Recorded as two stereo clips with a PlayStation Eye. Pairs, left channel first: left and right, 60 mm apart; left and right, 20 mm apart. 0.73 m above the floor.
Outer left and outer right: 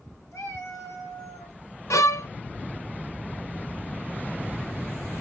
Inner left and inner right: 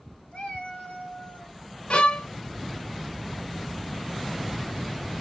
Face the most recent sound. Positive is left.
turn(degrees=55)  # may be behind; listen again after turning